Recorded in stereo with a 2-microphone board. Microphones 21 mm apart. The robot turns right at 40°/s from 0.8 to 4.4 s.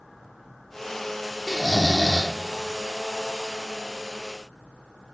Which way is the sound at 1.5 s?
115° right.